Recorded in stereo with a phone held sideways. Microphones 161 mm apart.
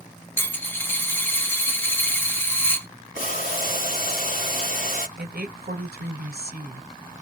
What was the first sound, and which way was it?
A dropped coin, 15° left (ahead or behind).